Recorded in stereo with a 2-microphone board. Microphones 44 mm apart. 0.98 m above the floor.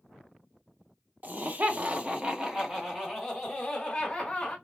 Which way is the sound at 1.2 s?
45° right (ahead or behind).